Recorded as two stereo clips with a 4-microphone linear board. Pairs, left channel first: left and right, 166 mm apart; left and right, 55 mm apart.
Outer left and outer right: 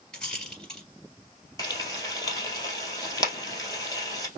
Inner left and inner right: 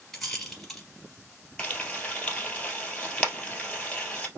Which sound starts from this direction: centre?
A rattle, at 0.1 s.